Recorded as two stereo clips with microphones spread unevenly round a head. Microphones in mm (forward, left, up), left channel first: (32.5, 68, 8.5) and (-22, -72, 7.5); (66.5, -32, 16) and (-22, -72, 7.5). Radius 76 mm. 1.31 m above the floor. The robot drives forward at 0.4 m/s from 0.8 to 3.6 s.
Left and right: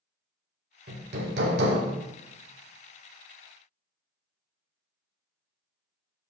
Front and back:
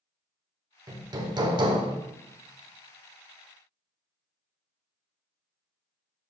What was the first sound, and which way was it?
Hammering, 105° right.